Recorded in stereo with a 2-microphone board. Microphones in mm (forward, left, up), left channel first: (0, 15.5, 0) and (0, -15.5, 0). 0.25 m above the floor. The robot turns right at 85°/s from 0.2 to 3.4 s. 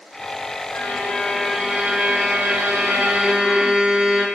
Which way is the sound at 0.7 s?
110° left.